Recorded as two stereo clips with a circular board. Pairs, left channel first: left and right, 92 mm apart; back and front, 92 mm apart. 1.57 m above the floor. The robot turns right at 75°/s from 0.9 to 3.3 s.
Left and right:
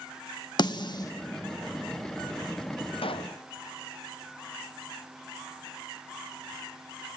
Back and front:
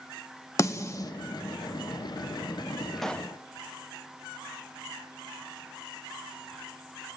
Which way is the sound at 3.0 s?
90° left.